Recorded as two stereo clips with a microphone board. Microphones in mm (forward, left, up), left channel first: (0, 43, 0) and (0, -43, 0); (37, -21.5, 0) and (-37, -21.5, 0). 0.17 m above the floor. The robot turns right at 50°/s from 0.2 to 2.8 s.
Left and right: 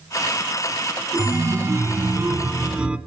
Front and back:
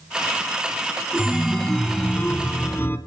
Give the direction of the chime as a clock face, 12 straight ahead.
4 o'clock.